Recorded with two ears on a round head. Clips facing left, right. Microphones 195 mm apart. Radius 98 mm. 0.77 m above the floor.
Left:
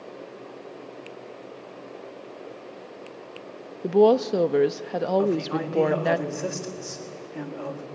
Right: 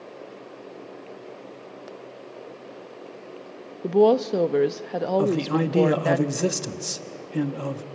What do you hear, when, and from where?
3.8 s a woman speaking: centre (ahead or behind), 0.5 m
5.2 s a man speaking: 50° right (ahead or behind), 1.3 m